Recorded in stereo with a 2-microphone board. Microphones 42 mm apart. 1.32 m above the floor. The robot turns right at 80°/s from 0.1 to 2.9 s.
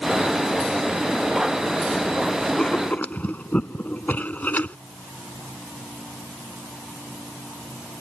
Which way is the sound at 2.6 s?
15° left (ahead or behind).